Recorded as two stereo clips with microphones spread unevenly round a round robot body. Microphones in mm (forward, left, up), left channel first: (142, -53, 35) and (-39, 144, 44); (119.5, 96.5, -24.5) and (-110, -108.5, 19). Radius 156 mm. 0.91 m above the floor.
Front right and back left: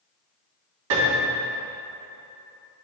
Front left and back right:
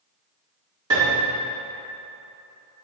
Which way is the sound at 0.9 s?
145° left.